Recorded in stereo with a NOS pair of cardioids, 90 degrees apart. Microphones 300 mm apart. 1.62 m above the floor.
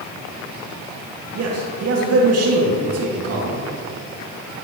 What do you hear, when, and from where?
1.4 s a man speaking: 55° right, 2 m